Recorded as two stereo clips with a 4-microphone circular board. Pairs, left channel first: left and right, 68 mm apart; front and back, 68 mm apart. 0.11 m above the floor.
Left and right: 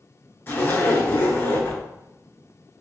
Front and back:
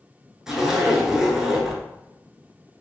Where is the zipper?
105° left, 0.7 m.